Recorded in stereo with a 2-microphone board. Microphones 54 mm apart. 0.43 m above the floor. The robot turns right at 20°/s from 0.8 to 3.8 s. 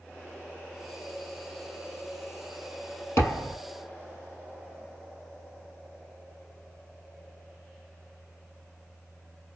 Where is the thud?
55° left (ahead or behind), 1.7 m; by 3.6 s 50° left (ahead or behind), 1.7 m.